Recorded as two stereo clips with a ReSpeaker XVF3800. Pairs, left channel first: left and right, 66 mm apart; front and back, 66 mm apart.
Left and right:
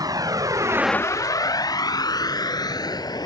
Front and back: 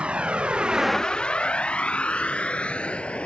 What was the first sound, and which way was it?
A vehicle, 110° right.